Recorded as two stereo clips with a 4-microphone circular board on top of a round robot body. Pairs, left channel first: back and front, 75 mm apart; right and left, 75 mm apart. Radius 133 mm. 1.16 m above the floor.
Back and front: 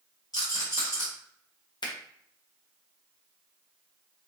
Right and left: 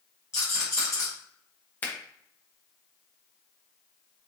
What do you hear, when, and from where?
0.3 s a rattle: 145° right, 1.4 m
1.8 s a finger snap: 155° right, 1.1 m